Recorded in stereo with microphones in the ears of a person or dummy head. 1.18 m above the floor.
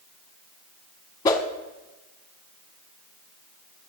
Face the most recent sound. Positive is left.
turn(degrees=25)  # may be behind; listen again after turning